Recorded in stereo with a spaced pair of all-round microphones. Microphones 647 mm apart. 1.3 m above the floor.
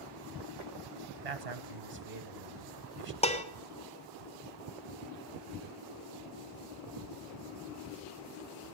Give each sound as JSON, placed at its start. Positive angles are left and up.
{"t": 1.2, "sound": "a man speaking", "side_deg": -70, "distance_m": 1.2}
{"t": 3.2, "sound": "dishes clattering", "side_deg": 10, "distance_m": 1.1}